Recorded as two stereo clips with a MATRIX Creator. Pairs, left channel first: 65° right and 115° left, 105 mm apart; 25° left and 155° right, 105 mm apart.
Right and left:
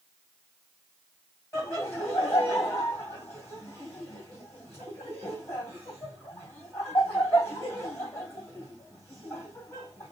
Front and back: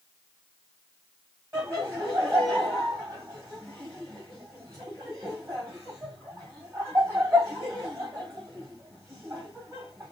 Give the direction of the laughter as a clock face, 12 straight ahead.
4 o'clock.